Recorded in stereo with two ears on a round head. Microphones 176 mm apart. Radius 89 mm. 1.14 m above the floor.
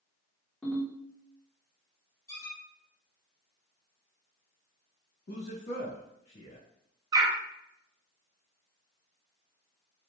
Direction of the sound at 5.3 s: 55° left (ahead or behind).